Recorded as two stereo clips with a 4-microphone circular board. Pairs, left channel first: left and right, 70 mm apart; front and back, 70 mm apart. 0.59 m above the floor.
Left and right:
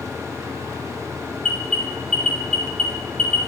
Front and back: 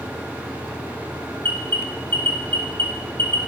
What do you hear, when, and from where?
1.4 s an alarm: 20° left, 2 m